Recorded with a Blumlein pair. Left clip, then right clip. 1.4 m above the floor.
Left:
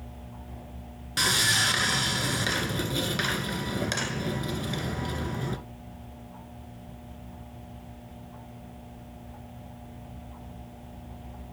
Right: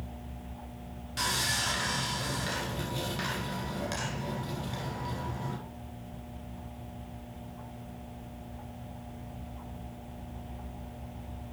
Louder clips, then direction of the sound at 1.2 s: Left 7 dB; 65° left.